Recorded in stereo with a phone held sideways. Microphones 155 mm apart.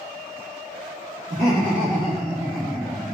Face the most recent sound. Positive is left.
turn(degrees=-70)  # may be behind; listen again after turning